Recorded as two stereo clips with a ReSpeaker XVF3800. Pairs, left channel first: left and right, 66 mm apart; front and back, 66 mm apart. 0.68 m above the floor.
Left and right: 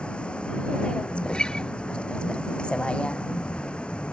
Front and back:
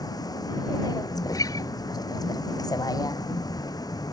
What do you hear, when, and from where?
0.0 s a vehicle: 15° left
1.2 s a guitar: 10° left